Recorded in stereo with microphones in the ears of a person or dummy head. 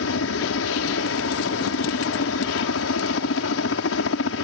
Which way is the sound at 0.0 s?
75° left (ahead or behind).